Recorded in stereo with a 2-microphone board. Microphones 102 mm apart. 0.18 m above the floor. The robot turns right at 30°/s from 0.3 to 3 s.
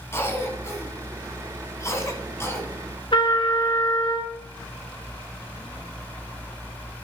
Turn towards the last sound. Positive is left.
turn(degrees=60)  # may be behind; listen again after turning